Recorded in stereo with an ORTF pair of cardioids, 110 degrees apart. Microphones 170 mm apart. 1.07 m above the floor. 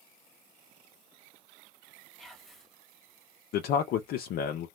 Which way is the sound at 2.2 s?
Straight ahead.